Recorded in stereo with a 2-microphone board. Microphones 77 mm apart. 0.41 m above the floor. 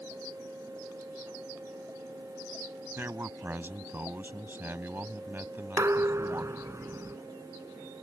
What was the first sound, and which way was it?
A man speaking, 30° right (ahead or behind).